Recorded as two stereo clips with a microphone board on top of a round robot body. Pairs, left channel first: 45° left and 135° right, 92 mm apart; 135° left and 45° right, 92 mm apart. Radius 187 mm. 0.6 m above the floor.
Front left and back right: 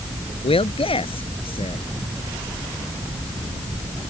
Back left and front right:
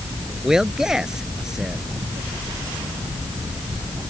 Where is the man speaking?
40° left.